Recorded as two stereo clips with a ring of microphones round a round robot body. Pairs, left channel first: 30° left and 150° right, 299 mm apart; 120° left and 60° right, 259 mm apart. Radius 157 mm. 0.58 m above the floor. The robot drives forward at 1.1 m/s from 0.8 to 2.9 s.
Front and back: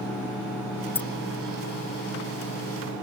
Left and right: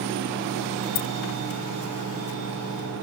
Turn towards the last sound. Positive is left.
turn(degrees=155)